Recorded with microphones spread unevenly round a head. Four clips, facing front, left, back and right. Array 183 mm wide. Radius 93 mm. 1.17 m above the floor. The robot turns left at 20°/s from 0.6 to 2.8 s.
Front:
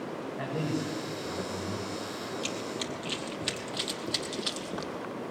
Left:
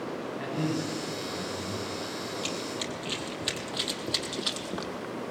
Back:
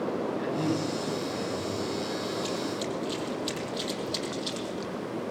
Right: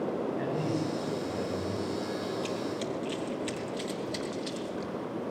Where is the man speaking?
45° right, 7.5 m; by 1.9 s 70° right, 7.5 m.